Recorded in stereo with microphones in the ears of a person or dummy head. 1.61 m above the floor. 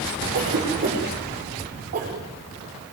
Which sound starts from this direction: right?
A cough, at 0.3 s.